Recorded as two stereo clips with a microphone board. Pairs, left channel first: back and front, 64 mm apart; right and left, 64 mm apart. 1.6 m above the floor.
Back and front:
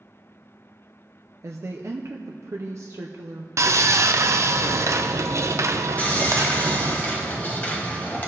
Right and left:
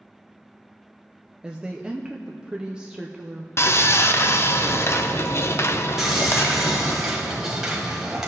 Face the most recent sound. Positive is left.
turn(degrees=160)